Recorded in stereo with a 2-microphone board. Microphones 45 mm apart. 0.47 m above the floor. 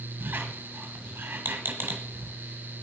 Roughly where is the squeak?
Right.